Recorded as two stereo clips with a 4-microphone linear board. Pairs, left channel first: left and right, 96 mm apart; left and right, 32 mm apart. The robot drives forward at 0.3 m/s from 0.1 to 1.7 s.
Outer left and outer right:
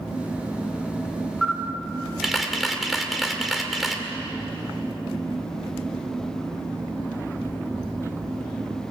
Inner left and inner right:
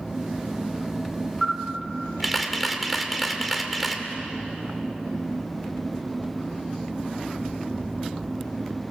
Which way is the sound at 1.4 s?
Centre (ahead or behind).